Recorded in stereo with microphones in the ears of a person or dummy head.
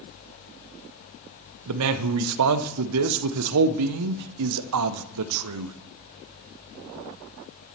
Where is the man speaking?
75° right (ahead or behind), 0.7 m.